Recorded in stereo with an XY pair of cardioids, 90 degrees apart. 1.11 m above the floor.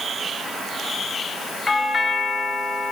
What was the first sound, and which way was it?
A doorbell, 35° left.